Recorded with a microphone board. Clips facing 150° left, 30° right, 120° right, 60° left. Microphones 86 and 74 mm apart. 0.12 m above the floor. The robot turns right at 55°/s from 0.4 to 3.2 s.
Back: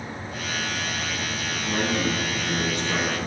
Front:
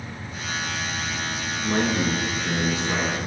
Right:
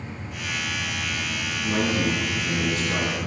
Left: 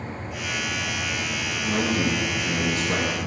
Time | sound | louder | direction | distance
1.6 | a man speaking | front 2 dB, even | 35° right | 1.5 m